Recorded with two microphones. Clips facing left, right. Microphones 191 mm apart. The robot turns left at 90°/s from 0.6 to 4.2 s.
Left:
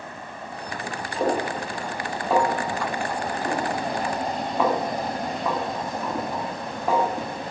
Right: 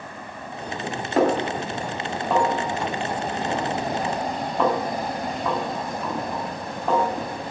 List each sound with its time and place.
1.2 s a snare drum: 80° right, 3.5 m; by 7.1 s 5° left (ahead or behind), 3.5 m